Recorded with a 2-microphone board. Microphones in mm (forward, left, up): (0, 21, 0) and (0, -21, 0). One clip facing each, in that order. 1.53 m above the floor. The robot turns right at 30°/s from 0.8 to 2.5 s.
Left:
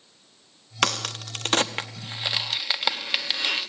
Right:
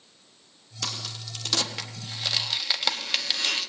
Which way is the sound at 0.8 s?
65° left (ahead or behind).